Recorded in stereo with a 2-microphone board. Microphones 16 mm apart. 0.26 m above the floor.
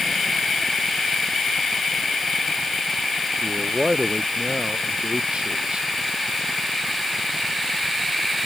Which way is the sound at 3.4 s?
80° right.